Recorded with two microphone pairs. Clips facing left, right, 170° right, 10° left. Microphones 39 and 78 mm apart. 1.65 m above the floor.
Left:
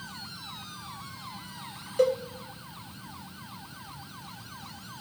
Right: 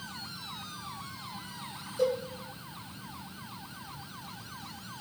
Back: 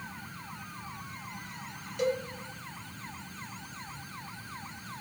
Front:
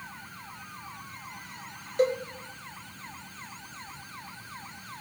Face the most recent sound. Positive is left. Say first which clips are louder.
# left 4 dB, front 4 dB
turn(degrees=60)